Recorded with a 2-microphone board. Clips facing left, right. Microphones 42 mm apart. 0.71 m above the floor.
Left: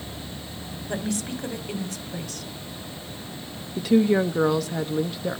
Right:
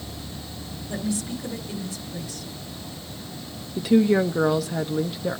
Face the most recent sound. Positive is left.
turn(degrees=0)  # may be behind; listen again after turning